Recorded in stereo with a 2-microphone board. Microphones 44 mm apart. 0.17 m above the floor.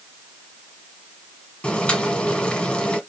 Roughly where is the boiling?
Left.